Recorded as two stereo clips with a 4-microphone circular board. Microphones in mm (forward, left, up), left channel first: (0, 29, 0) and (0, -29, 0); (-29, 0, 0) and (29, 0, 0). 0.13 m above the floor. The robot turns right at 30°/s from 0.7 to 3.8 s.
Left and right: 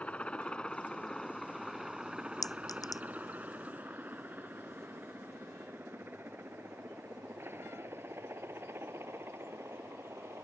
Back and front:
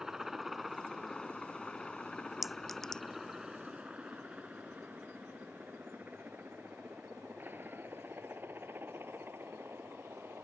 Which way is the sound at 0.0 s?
70° left.